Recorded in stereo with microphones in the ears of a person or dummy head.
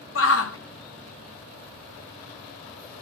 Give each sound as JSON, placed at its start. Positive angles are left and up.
{"t": 0.1, "sound": "a shout", "side_deg": 65, "distance_m": 0.7}